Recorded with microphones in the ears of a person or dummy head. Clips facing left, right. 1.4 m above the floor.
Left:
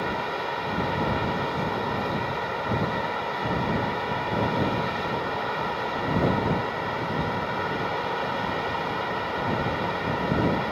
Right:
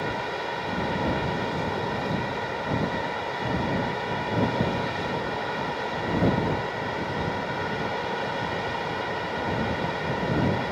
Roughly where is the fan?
Centre.